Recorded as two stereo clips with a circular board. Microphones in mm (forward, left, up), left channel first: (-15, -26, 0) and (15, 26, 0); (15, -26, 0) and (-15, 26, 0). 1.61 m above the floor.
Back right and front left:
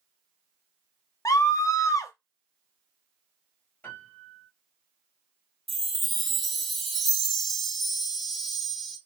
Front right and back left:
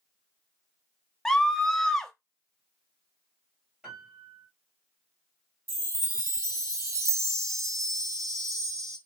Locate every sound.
1.2 s a scream: 140° right, 0.6 m
3.8 s a piano: 170° right, 2 m
5.7 s a chime: 150° left, 0.7 m